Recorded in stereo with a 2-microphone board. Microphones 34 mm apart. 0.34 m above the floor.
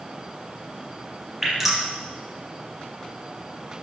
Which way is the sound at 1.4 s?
10° right (ahead or behind).